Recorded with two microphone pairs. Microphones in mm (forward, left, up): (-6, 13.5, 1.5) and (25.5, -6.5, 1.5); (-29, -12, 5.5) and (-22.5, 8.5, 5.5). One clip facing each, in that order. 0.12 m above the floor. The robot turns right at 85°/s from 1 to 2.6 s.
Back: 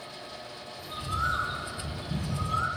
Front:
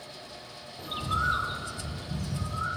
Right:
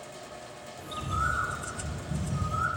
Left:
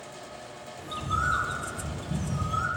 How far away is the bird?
About 1.4 m.